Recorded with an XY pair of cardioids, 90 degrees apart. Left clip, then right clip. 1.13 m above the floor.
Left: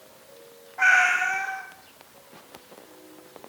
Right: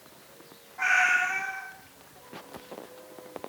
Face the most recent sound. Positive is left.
turn(degrees=40)